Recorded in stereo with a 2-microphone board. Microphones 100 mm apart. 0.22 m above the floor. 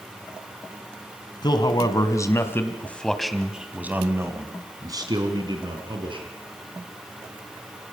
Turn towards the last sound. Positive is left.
turn(degrees=-55)  # may be behind; listen again after turning